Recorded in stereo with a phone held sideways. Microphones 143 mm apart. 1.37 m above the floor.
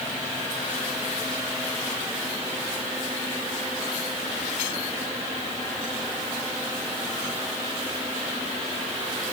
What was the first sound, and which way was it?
Only background noise.